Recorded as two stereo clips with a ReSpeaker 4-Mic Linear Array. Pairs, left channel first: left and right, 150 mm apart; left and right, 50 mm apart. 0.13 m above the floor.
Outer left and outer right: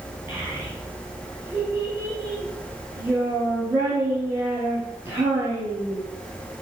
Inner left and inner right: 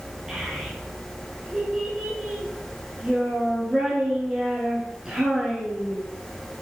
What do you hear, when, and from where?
0.3 s a child speaking: 10° right (ahead or behind), 1.8 m